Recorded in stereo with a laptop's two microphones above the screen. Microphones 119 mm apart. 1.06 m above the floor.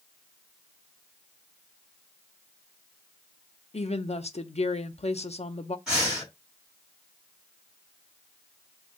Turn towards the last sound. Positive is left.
turn(degrees=0)  # may be behind; listen again after turning